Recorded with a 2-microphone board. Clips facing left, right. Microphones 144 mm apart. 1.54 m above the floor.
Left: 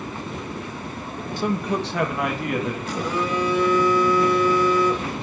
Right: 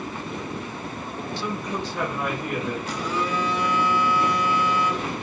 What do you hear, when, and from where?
1.4 s a man speaking: 45° left (ahead or behind), 0.8 m; by 2.8 s 80° left, 2.5 m
2.9 s a phone buzzing: 55° left (ahead or behind), 3 m